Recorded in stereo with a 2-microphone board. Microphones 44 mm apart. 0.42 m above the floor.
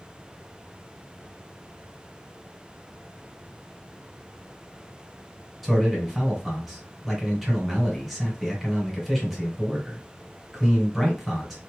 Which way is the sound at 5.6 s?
5° right (ahead or behind).